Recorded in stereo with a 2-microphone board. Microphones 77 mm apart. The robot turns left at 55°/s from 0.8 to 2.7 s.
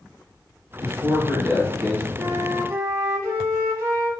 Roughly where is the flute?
Right.